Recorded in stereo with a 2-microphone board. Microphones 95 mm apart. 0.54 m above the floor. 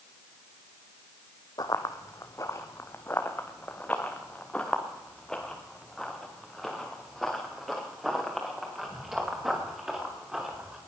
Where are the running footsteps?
50° left (ahead or behind), 1.6 m; by 10.8 s 5° right (ahead or behind), 6 m.